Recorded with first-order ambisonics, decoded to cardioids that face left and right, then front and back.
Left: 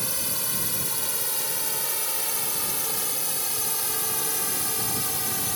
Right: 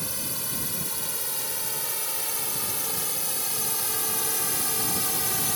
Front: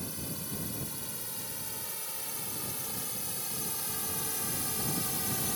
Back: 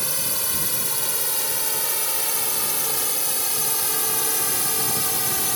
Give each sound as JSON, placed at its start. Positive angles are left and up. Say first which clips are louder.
{"t": 0.0, "sound": "a drone", "louder": "left 3 dB, back 14 dB", "azimuth_deg": 165}